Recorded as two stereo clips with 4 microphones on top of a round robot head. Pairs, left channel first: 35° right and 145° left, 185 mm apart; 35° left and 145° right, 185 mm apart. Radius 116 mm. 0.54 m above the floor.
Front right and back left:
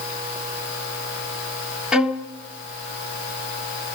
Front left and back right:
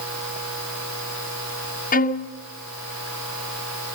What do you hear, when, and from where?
1.9 s a violin: 60° left, 1.7 m